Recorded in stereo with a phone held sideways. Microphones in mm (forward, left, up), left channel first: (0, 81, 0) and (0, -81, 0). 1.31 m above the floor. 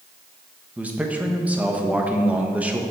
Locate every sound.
0.8 s a man speaking: 10° right (ahead or behind), 1.1 m